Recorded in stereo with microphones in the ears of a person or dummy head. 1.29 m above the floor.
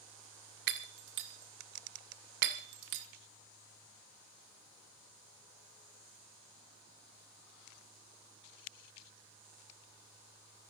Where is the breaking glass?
65° right (ahead or behind), 1.5 m.